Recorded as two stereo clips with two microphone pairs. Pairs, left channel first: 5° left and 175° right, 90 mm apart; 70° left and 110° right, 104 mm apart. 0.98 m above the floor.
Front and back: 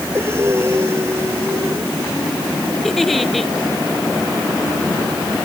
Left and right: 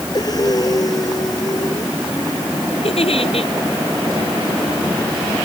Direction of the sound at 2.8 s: 95° left.